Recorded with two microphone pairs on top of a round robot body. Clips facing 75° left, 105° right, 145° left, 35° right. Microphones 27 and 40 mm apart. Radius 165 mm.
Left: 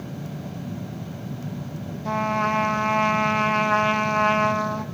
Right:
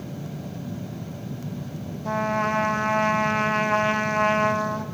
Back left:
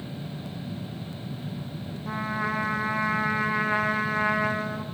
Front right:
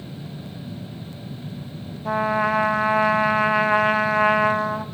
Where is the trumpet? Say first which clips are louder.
Left 1 dB, front right 8 dB; straight ahead, 1.1 m.